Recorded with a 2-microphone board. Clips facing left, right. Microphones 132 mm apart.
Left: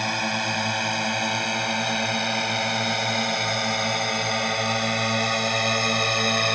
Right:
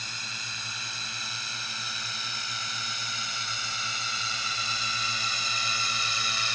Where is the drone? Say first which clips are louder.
Left 18 dB; 70° left (ahead or behind); by 6.6 s 60° left (ahead or behind).